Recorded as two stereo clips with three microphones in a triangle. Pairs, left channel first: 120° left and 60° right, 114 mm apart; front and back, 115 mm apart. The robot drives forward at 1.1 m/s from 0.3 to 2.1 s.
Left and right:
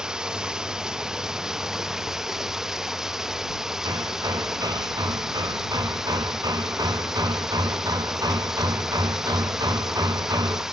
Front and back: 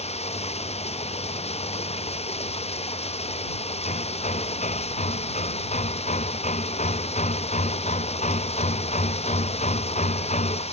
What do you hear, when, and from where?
0.0 s running water: 25° left
3.9 s hammering: 5° right